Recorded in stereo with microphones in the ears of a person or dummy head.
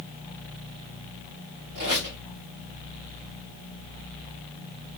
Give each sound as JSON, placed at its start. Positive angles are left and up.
{"t": 1.8, "sound": "a squeak", "side_deg": -65, "distance_m": 2.5}